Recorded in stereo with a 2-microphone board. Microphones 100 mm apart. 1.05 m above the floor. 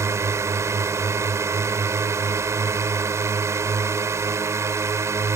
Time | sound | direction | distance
0.0 | a drone | 30° right (ahead or behind) | ?